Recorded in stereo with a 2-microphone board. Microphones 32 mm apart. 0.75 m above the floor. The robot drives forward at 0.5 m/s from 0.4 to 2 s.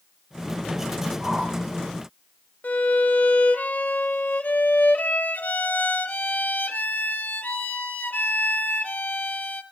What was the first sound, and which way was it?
A whoosh, 30° right (ahead or behind).